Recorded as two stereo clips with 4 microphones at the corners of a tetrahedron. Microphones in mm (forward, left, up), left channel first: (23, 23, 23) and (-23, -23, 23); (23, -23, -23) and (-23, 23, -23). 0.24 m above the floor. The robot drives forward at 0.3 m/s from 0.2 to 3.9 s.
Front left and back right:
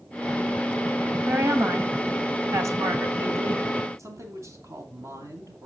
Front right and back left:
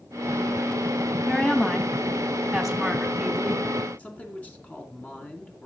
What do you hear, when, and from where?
1.2 s a woman speaking: 120° right, 1.3 m; by 3.6 s 145° right, 1.7 m
4.0 s a man speaking: 110° right, 2.5 m